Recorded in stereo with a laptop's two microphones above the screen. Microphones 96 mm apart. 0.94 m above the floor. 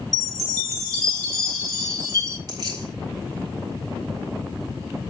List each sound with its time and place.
0.1 s a chime: 35° right (ahead or behind), 2.0 m
2.5 s keys jangling: 40° right (ahead or behind), 4 m